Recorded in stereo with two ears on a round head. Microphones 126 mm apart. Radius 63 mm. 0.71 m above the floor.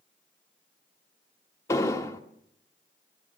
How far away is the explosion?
About 1.9 m.